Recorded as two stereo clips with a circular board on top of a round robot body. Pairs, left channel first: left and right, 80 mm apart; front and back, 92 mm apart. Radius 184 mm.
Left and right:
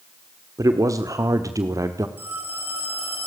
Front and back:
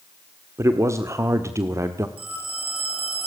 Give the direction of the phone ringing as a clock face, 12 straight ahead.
5 o'clock.